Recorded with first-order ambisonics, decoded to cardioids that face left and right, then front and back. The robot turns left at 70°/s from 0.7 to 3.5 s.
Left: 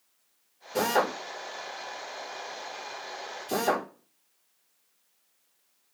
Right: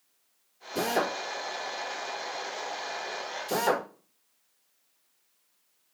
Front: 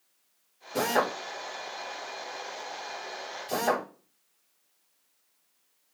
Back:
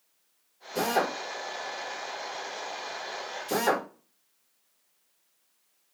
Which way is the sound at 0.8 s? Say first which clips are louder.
Left 2 dB, even; 50° left.